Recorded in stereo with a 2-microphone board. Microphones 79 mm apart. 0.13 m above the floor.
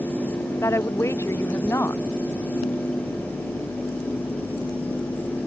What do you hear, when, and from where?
0.6 s a woman speaking: 35° left (ahead or behind)